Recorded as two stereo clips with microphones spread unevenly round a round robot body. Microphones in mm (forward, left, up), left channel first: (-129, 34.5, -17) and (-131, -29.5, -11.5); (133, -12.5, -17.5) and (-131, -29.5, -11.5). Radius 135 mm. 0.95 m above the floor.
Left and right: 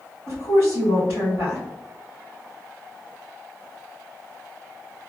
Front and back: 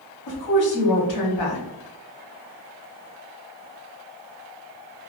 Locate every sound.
0.3 s a woman speaking: 25° left, 2.0 m